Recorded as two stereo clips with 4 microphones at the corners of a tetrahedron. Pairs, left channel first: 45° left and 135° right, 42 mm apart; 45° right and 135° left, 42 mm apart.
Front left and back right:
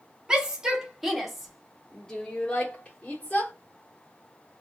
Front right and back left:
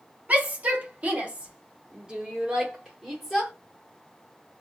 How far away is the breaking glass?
I don't hear breaking glass.